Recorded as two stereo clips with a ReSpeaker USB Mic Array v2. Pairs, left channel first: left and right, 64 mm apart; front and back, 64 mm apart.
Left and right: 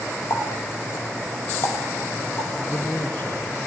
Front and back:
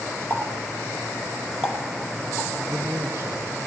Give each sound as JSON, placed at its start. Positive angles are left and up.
{"t": 0.3, "sound": "a running tap", "azimuth_deg": 130, "distance_m": 3.5}
{"t": 2.7, "sound": "a man speaking", "azimuth_deg": 145, "distance_m": 2.5}